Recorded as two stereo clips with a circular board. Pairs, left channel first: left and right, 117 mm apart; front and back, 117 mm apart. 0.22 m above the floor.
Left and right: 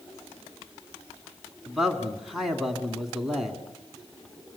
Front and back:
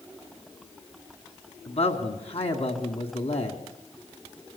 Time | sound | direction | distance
1.7 | a man speaking | straight ahead | 2.0 m